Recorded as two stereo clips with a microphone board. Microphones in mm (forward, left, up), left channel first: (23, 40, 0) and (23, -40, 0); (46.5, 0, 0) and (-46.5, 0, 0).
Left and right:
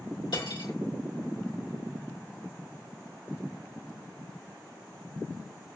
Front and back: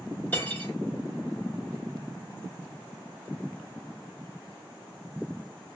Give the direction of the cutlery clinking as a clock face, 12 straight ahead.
10 o'clock.